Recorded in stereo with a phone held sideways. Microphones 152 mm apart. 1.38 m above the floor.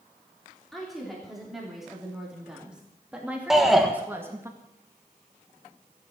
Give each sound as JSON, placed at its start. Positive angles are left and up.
{"t": 0.7, "sound": "a woman speaking", "side_deg": 0, "distance_m": 4.0}
{"t": 3.5, "sound": "a shout", "side_deg": 0, "distance_m": 1.5}